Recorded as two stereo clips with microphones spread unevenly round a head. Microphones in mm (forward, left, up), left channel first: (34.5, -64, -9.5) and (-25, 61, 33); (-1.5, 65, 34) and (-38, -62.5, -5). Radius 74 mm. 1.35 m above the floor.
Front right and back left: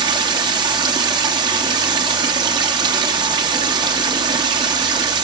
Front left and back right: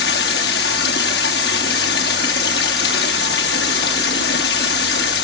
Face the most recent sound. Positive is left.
turn(degrees=55)